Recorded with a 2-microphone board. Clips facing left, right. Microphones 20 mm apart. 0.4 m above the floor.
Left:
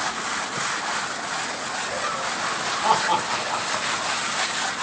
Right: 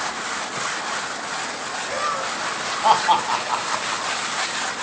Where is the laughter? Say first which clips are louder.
Right 4 dB; 35° right (ahead or behind), 1.8 m; by 4.2 s 40° right (ahead or behind), 4 m.